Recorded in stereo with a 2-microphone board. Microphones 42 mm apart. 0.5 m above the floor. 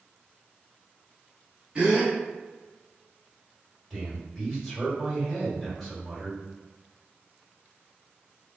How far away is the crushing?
I don't hear crushing.